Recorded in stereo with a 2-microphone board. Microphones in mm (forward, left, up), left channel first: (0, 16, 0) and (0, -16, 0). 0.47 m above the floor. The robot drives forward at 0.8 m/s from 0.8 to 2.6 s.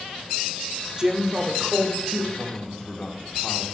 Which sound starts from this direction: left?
A man speaking, at 2.3 s.